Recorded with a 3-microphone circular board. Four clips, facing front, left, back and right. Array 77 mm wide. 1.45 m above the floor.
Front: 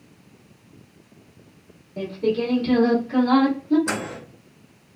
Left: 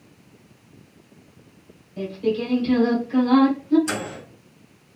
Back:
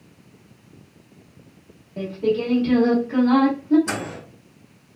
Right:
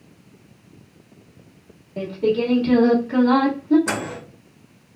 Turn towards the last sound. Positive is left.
turn(degrees=-75)